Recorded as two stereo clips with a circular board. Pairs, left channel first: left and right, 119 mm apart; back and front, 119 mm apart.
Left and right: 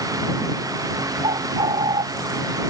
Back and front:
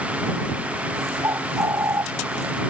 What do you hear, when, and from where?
1.2 s a bird: 60° right